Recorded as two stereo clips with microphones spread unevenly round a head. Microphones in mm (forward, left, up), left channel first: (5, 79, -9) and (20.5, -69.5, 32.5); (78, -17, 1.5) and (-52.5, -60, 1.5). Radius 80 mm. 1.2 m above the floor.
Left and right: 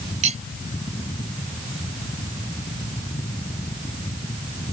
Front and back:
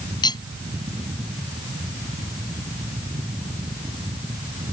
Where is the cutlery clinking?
40° right.